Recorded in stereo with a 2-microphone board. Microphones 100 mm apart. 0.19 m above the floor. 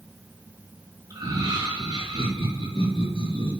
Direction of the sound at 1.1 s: 40° right (ahead or behind).